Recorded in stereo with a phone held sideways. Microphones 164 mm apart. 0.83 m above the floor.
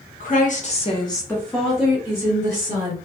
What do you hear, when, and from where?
0.2 s a woman speaking: 55° left (ahead or behind), 0.9 m; by 3.0 s 25° right (ahead or behind), 1.6 m